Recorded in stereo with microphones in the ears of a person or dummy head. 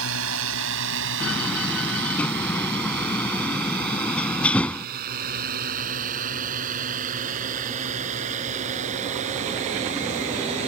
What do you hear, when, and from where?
0.0 s a drone: 75° right (ahead or behind); by 10.7 s 35° right (ahead or behind)
1.2 s a door slam: 5° left (ahead or behind)